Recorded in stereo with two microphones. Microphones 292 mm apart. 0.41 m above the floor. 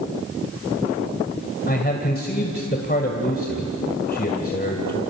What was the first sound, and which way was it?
A man speaking, 35° left (ahead or behind).